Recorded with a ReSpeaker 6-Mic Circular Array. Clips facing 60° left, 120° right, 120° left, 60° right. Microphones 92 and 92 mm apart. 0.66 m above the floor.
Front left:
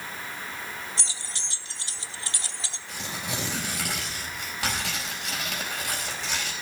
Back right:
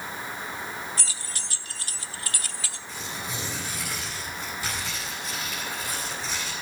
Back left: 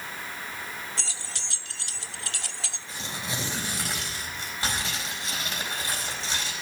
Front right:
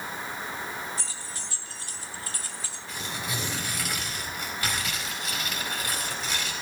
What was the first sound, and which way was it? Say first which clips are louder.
Keys jangling: back right 1 dB, front right 1 dB; 125° left.